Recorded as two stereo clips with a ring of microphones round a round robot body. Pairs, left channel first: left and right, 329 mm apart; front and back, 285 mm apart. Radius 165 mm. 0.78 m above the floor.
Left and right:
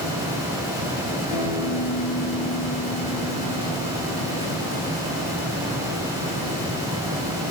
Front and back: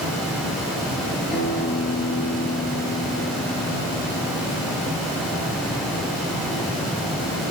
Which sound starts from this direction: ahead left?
A guitar, at 1.3 s.